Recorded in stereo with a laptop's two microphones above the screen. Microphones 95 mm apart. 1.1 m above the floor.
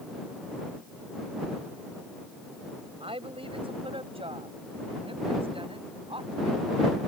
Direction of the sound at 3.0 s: 85° right.